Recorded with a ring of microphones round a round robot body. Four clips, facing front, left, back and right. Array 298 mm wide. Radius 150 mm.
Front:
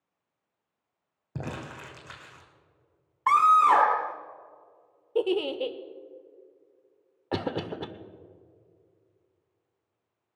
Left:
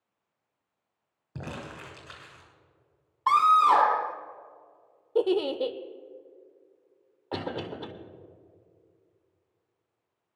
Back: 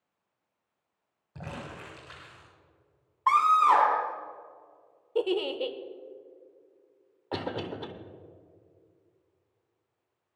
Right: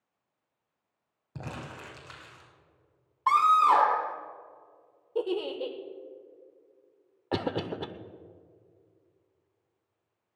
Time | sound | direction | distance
1.4 | crumpling | 15° left | 3 m
3.3 | a scream | 25° left | 0.9 m
5.2 | a giggle | 60° left | 0.7 m
7.3 | a cough | 45° right | 0.9 m